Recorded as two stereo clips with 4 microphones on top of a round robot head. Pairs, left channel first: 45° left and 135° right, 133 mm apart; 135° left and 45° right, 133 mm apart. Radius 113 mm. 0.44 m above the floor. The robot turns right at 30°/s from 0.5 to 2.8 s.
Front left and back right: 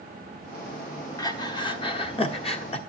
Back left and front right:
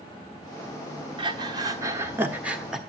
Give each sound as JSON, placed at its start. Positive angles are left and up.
{"t": 1.2, "sound": "breathing", "azimuth_deg": -5, "distance_m": 1.4}